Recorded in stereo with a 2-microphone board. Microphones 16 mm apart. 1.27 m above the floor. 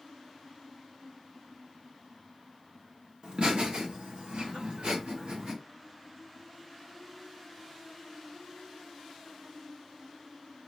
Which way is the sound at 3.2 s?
70° right (ahead or behind).